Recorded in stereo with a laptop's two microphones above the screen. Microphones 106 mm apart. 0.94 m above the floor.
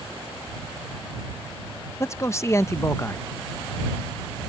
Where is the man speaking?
25° left (ahead or behind).